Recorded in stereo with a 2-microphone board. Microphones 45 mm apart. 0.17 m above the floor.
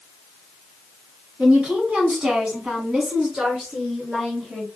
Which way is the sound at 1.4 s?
20° right (ahead or behind).